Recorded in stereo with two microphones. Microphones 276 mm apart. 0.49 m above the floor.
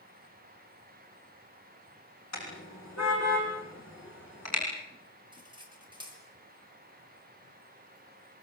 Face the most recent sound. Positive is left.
turn(degrees=-15)  # may be behind; listen again after turning